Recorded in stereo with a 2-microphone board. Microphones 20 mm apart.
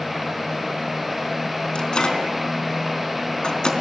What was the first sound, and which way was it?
A microwave, 40° left (ahead or behind).